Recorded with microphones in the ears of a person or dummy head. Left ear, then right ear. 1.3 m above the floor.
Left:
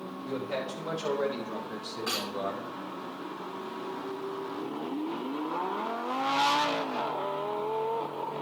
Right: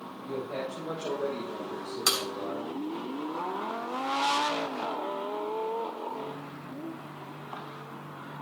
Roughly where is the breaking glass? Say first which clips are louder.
Right 5 dB; right.